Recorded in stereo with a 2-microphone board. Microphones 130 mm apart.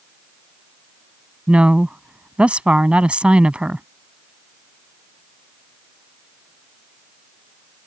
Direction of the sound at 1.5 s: 10° right (ahead or behind).